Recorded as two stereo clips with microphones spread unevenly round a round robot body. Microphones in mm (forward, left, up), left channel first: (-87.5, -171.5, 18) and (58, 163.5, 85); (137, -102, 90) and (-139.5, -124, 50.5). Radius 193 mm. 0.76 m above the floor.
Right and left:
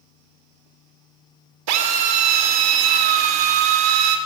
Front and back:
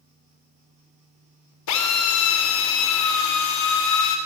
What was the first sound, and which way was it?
A drill, 40° left.